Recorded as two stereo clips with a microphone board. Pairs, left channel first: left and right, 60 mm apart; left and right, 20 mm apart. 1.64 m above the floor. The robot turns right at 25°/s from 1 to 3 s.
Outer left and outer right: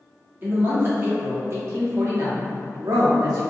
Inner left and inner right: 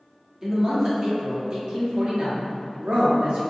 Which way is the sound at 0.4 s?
145° right.